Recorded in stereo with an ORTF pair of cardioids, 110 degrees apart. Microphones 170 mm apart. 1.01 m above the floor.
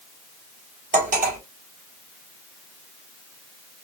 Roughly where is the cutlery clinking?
Ahead right.